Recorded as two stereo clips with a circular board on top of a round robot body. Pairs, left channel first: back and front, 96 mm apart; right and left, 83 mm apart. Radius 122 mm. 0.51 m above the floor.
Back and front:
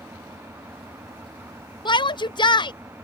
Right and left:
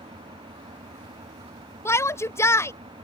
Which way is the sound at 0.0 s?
70° left.